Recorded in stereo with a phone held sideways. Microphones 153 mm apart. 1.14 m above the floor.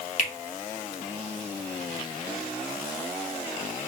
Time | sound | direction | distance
0.2 | a finger snap | 55° left (ahead or behind) | 1.0 m